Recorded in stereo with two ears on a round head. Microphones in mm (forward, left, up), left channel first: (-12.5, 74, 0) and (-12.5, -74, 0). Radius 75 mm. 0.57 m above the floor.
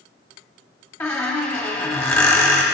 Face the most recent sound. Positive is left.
turn(degrees=15)  # may be behind; listen again after turning